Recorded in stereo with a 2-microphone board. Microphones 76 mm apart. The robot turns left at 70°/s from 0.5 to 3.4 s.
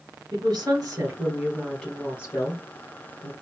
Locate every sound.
0.3 s a woman speaking: 95° right, 1.9 m; by 3.3 s 70° left, 1.9 m